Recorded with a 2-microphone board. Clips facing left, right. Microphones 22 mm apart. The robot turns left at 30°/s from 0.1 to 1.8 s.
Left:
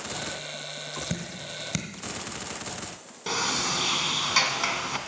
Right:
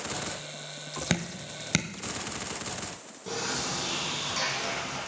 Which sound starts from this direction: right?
Dripping, at 1.1 s.